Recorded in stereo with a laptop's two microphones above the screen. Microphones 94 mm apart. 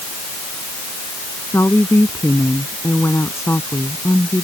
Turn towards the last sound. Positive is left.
turn(degrees=30)  # may be behind; listen again after turning